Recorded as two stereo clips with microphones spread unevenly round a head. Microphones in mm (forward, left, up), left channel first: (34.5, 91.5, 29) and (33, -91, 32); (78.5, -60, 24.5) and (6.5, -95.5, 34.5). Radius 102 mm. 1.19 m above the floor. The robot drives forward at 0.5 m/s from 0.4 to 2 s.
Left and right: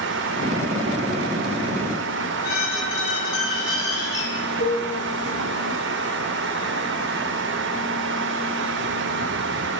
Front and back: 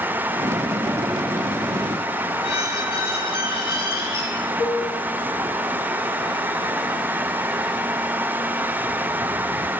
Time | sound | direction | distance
2.4 | a squeak | 65° left | 4.5 m
4.6 | a cowbell | 115° left | 5 m